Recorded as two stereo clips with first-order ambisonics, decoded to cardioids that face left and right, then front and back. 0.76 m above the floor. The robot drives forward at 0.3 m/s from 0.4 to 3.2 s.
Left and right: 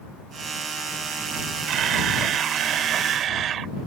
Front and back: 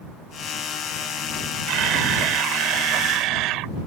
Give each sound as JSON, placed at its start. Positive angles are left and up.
{"t": 1.7, "sound": "a camera shutter", "azimuth_deg": -140}